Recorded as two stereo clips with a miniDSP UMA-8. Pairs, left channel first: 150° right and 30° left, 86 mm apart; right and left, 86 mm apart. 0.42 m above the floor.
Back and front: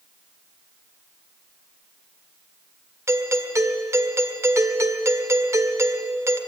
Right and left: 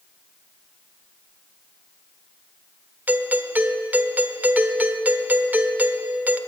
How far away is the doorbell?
About 1.3 m.